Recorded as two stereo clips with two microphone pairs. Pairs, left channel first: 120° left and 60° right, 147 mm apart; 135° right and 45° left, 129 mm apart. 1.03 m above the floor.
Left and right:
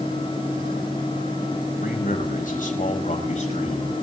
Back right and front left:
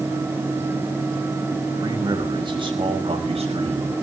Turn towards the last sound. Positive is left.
turn(degrees=80)